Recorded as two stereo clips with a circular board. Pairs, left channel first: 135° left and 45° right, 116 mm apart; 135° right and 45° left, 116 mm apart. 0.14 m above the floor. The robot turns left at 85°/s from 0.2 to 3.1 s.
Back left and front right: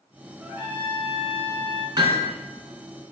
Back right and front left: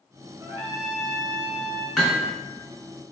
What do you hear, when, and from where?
0.4 s a trumpet: 15° left, 1.2 m; by 1.9 s 110° right, 1.2 m
2.0 s hammering: 55° right, 1.0 m; by 2.3 s 85° right, 1.0 m